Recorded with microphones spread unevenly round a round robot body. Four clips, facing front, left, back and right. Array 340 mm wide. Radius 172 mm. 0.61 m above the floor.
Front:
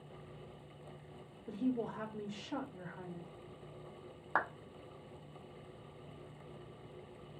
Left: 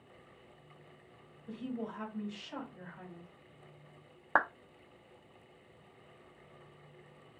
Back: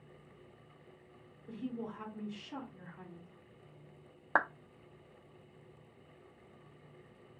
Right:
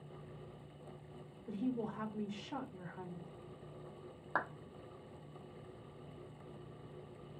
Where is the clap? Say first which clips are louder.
Left 8 dB, back 4 dB; 120° left, 0.7 m.